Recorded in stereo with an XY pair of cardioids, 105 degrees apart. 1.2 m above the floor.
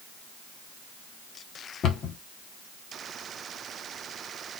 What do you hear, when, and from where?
1.8 s a cupboard door: 65° left, 1.6 m